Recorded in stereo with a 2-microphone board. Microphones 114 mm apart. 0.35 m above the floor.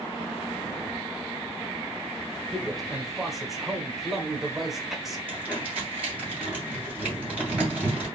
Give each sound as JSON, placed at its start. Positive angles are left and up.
{"t": 2.5, "sound": "a man speaking", "side_deg": 0, "distance_m": 1.0}
{"t": 5.3, "sound": "crumpling", "side_deg": -15, "distance_m": 3.0}